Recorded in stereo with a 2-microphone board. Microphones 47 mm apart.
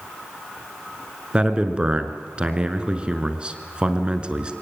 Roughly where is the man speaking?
Right.